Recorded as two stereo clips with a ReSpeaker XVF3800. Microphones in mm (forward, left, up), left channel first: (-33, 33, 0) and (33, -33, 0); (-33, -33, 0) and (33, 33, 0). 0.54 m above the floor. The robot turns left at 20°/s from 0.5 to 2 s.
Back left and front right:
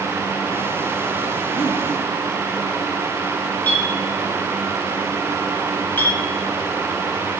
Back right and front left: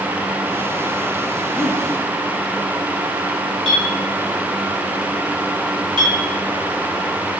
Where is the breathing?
150° left, 1.9 m; by 1.8 s 145° left, 1.9 m.